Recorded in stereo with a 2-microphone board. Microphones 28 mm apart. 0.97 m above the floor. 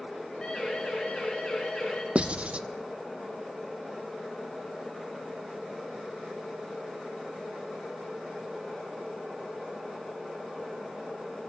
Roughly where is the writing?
Right.